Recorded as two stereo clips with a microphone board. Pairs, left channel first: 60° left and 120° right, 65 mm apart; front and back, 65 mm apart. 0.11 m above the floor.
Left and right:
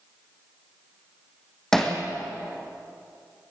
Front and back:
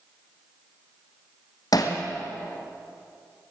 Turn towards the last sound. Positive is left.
turn(degrees=-25)